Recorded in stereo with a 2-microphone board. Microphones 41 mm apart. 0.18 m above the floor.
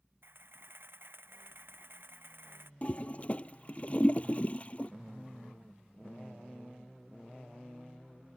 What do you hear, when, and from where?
0.2 s a camera shutter: 65° right (ahead or behind)
2.8 s a toilet flushing: 35° left (ahead or behind)